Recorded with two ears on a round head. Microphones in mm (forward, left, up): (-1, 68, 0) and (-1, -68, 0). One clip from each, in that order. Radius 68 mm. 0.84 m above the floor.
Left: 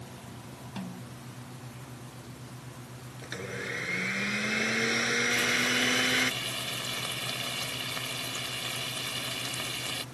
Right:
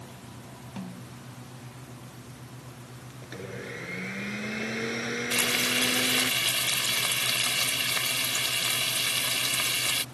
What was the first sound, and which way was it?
A snare drum, 20° left (ahead or behind).